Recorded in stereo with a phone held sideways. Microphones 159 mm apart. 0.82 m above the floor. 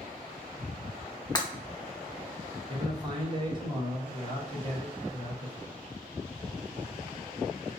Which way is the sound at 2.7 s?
30° right (ahead or behind).